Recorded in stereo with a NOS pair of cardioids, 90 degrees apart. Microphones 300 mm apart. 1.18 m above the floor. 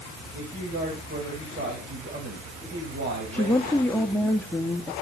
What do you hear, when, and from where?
0.3 s a man speaking: 35° right, 7 m
3.3 s a woman speaking: 5° left, 1.7 m